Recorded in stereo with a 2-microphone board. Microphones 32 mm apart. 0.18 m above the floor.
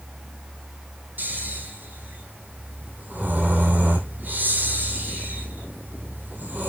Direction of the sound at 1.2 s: 70° right (ahead or behind).